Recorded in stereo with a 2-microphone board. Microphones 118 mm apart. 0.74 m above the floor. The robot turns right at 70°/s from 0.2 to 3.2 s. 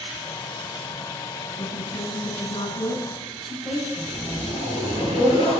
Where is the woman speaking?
70° left, 6 m; by 4.5 s straight behind, 6 m.